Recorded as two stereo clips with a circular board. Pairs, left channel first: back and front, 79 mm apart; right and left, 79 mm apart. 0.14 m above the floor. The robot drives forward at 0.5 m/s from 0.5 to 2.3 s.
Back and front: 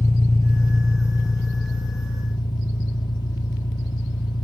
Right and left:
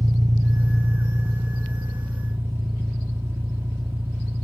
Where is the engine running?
125° left, 0.9 m; by 4.5 s 155° left, 1.6 m.